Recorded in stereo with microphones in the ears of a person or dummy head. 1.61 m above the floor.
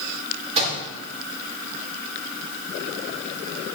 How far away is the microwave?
About 3.5 m.